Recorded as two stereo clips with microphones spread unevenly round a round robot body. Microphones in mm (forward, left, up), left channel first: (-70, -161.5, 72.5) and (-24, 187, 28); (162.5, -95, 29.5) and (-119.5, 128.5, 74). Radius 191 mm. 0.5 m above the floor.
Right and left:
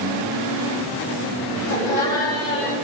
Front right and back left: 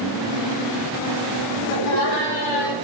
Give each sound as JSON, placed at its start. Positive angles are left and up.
{"t": 1.7, "sound": "laughter", "azimuth_deg": -10, "distance_m": 5.5}